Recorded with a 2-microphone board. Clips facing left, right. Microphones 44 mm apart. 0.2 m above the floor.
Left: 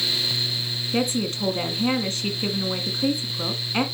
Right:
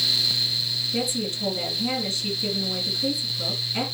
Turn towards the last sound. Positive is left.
turn(degrees=55)  # may be behind; listen again after turning